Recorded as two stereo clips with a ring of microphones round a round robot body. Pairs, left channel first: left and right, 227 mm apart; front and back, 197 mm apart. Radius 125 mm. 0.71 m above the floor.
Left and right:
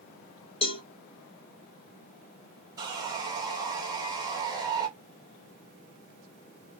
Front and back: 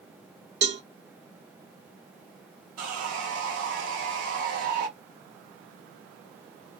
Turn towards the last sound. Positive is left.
turn(degrees=-165)